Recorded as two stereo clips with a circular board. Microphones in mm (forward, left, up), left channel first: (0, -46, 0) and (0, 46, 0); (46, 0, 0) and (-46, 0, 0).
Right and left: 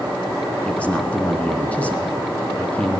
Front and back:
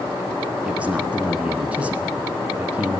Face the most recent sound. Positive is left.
turn(degrees=-135)